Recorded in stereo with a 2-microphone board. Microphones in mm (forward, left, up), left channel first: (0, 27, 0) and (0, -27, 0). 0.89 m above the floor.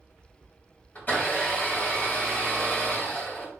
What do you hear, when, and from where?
0.9 s a blender: 30° left (ahead or behind), 1.6 m